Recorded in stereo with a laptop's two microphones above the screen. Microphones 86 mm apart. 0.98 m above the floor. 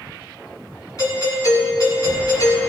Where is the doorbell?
45° left (ahead or behind), 3.5 m.